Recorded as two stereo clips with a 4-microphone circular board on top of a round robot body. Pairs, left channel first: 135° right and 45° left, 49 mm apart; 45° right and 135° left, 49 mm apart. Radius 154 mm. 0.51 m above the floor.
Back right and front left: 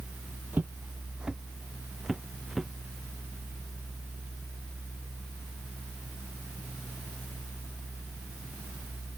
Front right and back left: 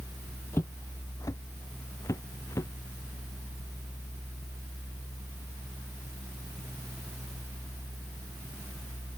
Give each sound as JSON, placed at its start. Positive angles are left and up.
{"t": 0.5, "sound": "footsteps", "azimuth_deg": -5}